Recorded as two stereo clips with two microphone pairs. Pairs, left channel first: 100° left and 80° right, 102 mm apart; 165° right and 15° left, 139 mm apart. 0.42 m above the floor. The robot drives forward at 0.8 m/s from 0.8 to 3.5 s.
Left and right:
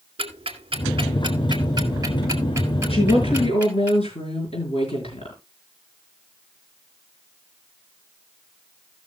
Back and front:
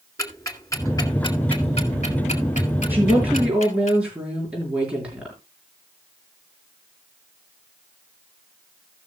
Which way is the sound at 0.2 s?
100° right.